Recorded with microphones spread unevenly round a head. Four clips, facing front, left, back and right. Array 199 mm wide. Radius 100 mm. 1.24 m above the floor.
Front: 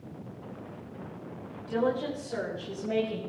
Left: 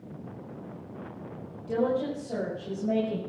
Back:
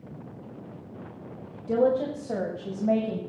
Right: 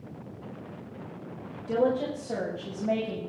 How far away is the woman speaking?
About 6.5 m.